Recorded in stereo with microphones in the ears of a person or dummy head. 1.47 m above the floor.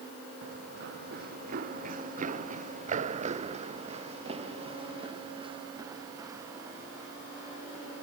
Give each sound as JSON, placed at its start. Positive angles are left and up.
{"t": 0.4, "sound": "running footsteps", "side_deg": -60}